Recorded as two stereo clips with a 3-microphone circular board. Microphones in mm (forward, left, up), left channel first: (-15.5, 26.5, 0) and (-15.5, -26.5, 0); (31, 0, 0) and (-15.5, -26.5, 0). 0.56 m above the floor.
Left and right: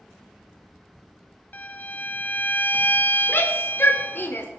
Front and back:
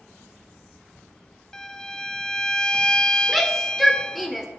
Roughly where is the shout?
Behind left.